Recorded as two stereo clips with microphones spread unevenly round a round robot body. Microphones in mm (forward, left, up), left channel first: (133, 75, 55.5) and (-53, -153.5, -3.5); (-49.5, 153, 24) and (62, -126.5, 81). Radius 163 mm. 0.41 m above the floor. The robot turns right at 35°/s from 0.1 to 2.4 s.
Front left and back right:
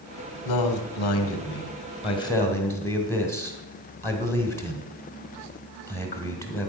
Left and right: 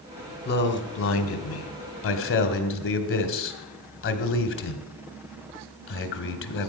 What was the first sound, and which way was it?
A man speaking, 70° left.